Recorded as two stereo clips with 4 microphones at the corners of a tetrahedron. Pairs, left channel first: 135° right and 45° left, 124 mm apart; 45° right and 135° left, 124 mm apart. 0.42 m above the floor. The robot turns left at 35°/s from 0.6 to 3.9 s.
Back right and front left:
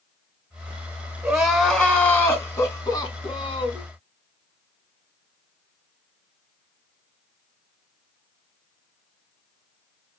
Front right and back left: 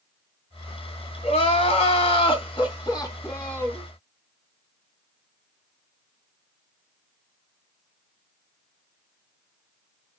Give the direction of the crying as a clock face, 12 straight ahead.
1 o'clock.